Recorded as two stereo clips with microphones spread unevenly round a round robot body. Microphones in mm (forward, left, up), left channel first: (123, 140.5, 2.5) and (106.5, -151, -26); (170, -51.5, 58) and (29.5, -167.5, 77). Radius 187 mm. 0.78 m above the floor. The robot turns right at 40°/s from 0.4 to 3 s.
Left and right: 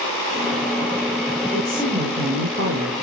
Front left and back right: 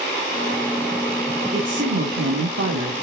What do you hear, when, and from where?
1.5 s a woman speaking: 160° left, 2.0 m; by 3.0 s 145° right, 2.0 m